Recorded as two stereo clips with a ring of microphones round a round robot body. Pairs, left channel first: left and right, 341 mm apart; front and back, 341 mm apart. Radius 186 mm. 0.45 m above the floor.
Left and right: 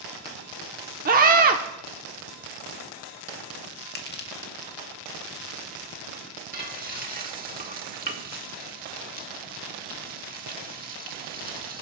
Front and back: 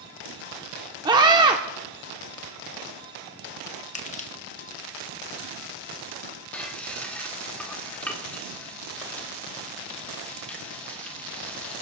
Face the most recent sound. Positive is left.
turn(degrees=-80)